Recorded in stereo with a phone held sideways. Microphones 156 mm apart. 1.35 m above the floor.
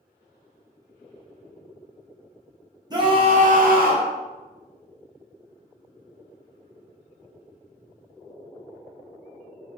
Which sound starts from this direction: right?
A scream, at 2.9 s.